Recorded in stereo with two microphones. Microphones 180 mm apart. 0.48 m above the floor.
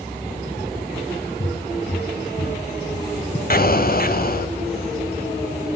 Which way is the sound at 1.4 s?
70° left (ahead or behind).